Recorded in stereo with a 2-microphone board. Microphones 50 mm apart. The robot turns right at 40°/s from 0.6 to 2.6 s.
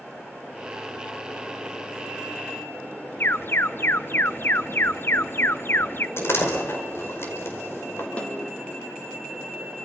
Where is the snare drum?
25° left (ahead or behind), 4 m.